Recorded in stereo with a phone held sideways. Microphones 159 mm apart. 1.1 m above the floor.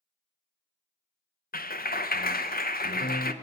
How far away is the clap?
About 0.6 m.